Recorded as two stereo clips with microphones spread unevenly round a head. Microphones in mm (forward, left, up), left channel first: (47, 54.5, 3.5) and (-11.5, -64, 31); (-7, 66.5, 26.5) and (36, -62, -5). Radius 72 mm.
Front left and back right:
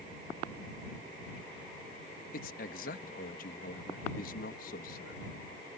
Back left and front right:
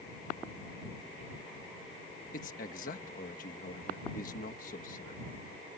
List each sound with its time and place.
2.3 s a man speaking: 80° left